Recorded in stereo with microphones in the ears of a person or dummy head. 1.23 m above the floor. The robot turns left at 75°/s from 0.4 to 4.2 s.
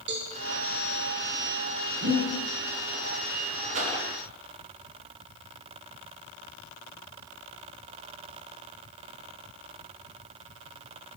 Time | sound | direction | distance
0.1 | a cowbell | 55° right (ahead or behind) | 0.8 m
2.0 | breathing | 75° right (ahead or behind) | 1.9 m
3.7 | a whoosh | 35° right (ahead or behind) | 0.9 m